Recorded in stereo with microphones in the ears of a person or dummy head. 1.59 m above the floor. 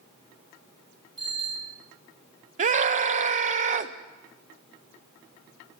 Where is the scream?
40° right (ahead or behind), 0.8 m.